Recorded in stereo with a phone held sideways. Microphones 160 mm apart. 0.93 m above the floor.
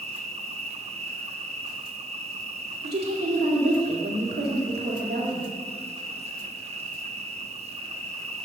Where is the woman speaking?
80° right, 2 m.